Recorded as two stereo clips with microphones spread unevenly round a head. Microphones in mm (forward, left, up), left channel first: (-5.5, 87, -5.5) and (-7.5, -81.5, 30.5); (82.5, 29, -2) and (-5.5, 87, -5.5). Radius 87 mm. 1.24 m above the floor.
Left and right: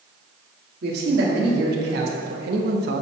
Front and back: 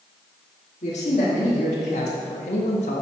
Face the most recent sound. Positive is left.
turn(degrees=-60)